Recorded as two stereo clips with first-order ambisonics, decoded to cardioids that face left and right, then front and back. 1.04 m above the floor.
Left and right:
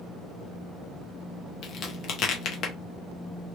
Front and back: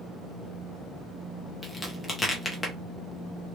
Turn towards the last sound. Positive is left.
turn(degrees=75)